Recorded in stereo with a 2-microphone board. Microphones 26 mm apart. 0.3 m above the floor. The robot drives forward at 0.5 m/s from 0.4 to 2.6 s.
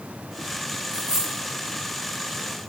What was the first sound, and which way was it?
A dropped coin, 75° right (ahead or behind).